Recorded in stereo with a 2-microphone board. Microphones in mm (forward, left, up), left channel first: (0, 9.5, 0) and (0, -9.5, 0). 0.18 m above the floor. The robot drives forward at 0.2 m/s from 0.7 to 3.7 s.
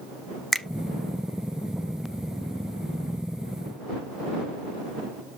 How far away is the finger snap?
About 0.8 m.